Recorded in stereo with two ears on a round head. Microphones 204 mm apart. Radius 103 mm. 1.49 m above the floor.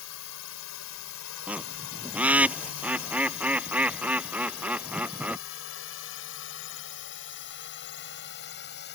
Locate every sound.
0.0 s a drone: 70° left (ahead or behind); by 9.0 s 50° left (ahead or behind)
1.5 s a bird: 5° right (ahead or behind)